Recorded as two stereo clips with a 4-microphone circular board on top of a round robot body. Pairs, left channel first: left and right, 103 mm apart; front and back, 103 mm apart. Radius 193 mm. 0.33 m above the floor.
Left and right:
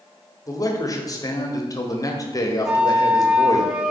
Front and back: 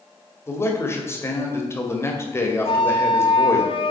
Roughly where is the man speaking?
Ahead left.